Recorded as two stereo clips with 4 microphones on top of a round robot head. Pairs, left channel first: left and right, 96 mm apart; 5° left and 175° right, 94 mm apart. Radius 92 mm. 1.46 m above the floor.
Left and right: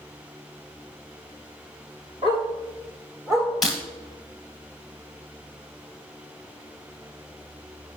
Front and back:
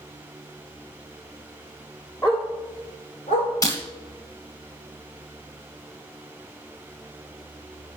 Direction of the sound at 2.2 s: 75° right.